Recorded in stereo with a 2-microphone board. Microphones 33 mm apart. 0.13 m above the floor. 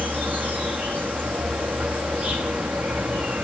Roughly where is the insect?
Right.